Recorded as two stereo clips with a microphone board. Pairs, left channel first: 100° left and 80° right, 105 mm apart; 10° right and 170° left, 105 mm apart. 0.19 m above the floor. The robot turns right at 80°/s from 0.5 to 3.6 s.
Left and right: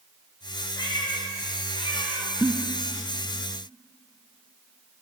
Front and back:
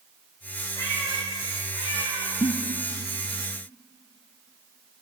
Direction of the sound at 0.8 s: 45° left.